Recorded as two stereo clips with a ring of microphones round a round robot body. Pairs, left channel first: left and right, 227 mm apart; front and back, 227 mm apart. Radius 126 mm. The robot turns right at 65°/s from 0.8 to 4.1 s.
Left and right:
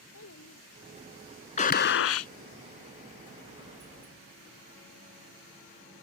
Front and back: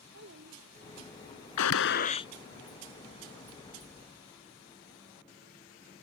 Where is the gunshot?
30° left; by 2.3 s 75° left.